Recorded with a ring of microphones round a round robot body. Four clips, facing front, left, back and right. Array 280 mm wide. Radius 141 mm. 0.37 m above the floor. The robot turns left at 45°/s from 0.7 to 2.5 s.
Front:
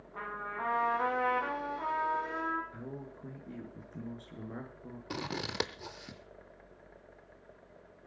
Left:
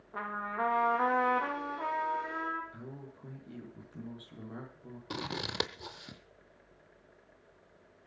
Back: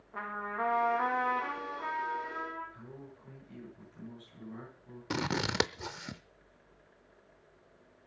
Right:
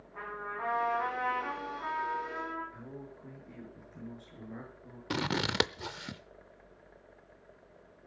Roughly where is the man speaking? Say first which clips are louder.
Right 1 dB, front 5 dB; ahead.